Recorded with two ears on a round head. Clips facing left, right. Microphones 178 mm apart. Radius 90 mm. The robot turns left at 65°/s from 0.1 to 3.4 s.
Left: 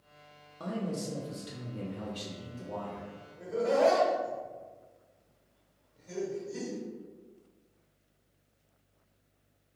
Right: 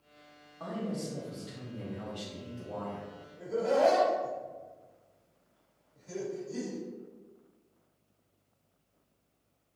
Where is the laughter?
70° right (ahead or behind), 1.8 m.